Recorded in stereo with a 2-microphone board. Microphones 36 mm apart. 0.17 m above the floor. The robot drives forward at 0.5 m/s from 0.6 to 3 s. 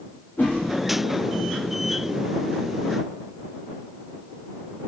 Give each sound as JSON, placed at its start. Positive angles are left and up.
{"t": 0.4, "sound": "a whoosh", "side_deg": 60, "distance_m": 9.5}